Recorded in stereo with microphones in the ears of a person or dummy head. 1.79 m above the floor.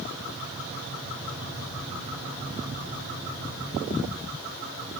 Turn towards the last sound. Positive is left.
No sound to turn to.